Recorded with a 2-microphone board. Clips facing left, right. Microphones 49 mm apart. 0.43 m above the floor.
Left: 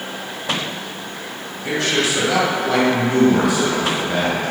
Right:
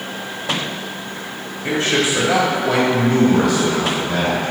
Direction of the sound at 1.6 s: 30° right (ahead or behind).